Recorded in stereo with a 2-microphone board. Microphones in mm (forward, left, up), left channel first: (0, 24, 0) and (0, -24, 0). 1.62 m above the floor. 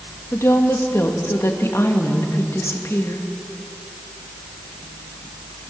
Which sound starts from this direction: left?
A woman speaking, at 0.3 s.